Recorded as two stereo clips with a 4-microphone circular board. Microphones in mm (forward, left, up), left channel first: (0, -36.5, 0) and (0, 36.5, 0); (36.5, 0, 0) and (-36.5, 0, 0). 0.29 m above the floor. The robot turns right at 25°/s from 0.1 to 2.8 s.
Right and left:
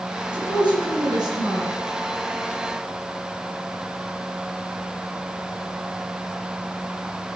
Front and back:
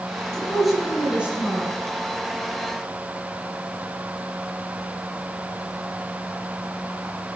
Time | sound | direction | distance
0.3 | a woman speaking | 85° left | 4 m